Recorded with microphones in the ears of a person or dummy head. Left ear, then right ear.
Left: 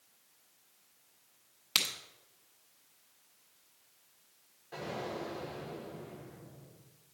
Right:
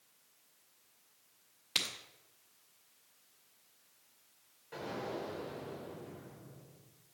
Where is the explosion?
5° right (ahead or behind), 3.5 m.